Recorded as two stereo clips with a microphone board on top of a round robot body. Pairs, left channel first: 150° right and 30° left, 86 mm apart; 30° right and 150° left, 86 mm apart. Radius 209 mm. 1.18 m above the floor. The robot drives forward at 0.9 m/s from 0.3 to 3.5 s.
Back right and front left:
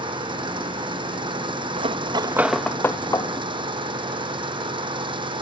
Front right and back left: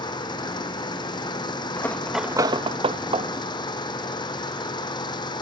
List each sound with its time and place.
0.0 s an engine running: 5° left
1.8 s cutlery clinking: 35° left; by 3.3 s 160° left